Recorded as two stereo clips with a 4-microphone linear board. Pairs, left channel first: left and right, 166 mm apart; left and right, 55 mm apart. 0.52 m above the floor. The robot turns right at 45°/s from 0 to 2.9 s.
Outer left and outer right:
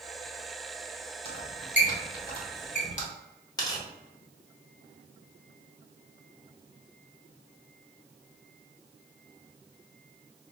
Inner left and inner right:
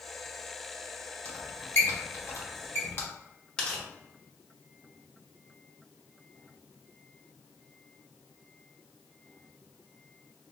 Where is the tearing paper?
20° left (ahead or behind), 0.9 m.